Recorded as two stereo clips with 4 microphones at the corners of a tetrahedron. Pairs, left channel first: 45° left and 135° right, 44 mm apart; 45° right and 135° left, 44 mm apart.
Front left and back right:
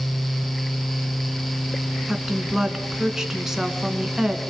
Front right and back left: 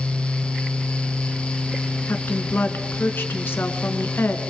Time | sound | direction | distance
2.1 | a woman speaking | 55° right | 3 m